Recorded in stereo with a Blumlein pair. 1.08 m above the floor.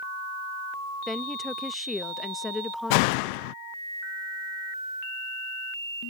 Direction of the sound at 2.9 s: 45° left.